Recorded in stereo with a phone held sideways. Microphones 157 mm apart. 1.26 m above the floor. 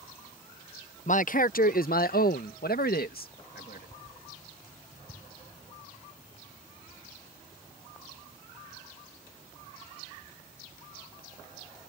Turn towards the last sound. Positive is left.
turn(degrees=80)